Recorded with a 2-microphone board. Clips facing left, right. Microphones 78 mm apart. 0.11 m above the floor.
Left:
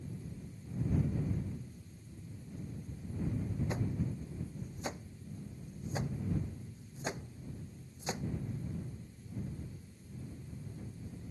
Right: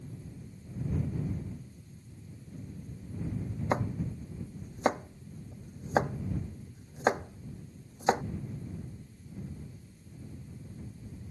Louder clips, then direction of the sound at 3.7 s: Right 6 dB; 70° right (ahead or behind).